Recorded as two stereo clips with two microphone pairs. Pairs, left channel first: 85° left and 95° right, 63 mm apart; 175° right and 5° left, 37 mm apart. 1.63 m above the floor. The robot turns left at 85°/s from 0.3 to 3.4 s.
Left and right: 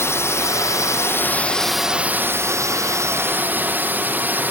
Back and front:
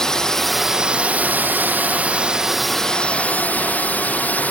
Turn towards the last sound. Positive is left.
turn(degrees=-150)